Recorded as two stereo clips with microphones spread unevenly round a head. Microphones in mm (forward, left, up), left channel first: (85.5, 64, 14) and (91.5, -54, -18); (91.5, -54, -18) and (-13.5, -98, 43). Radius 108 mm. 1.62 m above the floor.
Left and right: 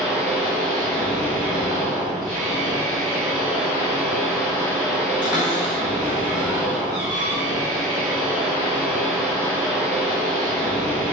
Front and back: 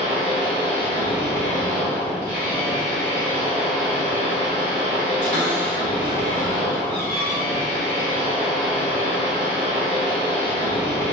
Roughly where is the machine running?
Behind.